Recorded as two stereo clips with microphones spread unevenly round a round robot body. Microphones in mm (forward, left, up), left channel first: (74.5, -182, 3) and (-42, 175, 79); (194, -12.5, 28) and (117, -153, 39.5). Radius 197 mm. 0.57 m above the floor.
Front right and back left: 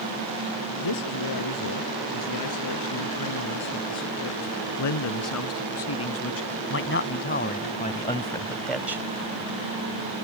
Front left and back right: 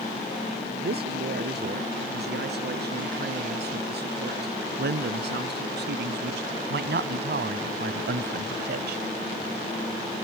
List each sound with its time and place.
0.8 s a man speaking: 110° right; by 9.1 s 165° right